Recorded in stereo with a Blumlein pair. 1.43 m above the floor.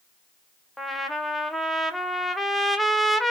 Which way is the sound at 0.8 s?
5° left.